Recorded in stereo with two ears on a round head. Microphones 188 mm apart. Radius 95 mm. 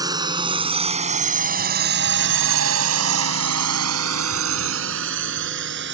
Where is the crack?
No crack in this recording.